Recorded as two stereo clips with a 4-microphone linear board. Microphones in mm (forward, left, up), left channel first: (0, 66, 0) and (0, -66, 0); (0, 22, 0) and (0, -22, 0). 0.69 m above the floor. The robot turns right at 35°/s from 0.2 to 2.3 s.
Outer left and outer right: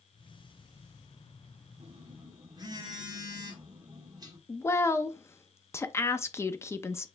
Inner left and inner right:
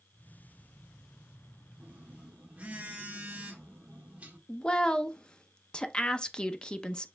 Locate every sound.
1.8 s a phone buzzing: 45° right (ahead or behind), 1.1 m; by 4.4 s 30° right (ahead or behind), 1.1 m
4.5 s a woman speaking: 20° left (ahead or behind), 0.5 m